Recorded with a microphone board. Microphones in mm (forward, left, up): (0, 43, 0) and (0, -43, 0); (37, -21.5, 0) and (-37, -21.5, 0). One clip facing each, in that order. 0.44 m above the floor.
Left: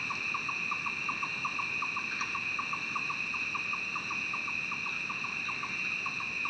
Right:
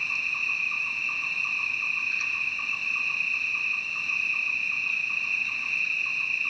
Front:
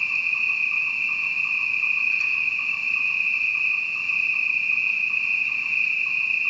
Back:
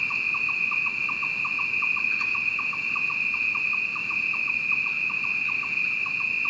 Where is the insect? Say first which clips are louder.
Right 2 dB, front 2 dB; 140° left, 1.0 m.